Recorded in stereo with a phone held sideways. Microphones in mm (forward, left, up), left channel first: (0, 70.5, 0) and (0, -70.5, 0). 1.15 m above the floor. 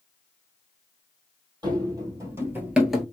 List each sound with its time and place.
1.6 s running footsteps: 30° right (ahead or behind), 1.9 m; by 3.0 s 5° left (ahead or behind), 1.1 m